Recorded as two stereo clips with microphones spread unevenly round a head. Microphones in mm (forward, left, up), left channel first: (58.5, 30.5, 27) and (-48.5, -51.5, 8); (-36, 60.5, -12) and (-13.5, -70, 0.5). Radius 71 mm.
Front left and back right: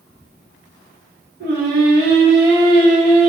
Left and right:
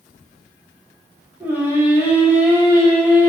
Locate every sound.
1.4 s singing: 155° right, 0.5 m